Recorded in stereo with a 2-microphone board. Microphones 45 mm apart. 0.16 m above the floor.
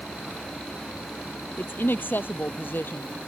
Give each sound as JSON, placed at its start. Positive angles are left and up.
{"t": 1.6, "sound": "a woman speaking", "side_deg": 55}